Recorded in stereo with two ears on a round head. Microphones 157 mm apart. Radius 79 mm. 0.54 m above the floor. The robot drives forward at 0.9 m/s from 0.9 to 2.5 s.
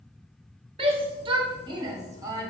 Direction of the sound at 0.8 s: 30° right (ahead or behind).